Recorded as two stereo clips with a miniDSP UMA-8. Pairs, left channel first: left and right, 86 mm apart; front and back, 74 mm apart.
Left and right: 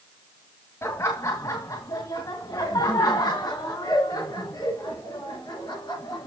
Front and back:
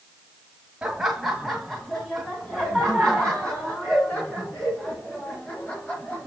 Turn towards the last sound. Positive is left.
turn(degrees=65)